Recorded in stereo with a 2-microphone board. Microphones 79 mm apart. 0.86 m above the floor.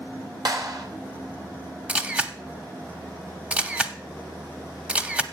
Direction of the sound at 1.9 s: 15° right (ahead or behind).